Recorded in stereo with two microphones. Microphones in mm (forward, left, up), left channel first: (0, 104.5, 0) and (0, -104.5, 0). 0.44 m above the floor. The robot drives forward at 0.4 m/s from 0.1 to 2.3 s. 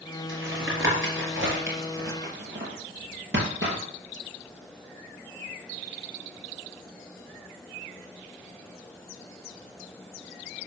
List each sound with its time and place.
0.3 s tapping: 75° right (ahead or behind), 3.5 m; by 3.8 s 65° right (ahead or behind), 3.5 m